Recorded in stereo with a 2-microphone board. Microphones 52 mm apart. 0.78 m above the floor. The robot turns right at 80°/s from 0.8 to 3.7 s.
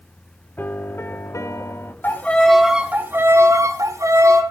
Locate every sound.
0.6 s a piano: 40° left, 1.0 m; by 1.9 s 130° left, 1.0 m
2.0 s a violin: 140° left, 2.5 m; by 4.4 s 85° right, 2.5 m